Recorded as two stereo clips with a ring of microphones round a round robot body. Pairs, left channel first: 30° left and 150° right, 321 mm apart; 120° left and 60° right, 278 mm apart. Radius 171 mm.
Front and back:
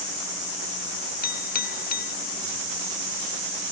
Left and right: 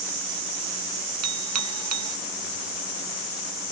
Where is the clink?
35° right.